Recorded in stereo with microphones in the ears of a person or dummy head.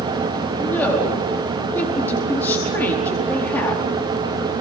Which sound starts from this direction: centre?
A woman speaking, at 0.6 s.